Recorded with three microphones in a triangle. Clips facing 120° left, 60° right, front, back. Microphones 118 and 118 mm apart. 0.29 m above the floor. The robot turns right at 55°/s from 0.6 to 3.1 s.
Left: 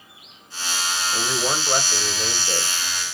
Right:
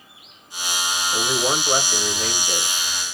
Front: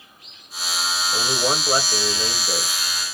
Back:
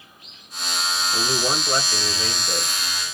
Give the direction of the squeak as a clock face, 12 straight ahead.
No squeak in this recording.